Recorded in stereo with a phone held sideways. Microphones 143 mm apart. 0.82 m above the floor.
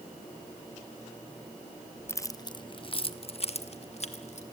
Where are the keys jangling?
15° left (ahead or behind), 0.5 m; by 4.4 s 50° left (ahead or behind), 1.9 m.